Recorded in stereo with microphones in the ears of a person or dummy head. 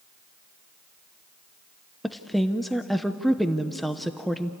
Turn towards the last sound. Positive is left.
turn(degrees=0)  # may be behind; listen again after turning